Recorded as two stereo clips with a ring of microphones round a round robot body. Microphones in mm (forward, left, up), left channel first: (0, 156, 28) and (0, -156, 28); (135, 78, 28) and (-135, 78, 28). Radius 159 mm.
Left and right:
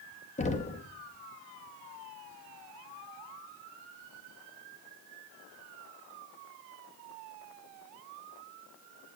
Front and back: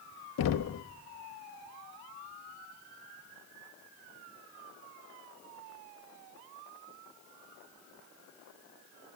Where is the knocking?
20° left, 0.7 m.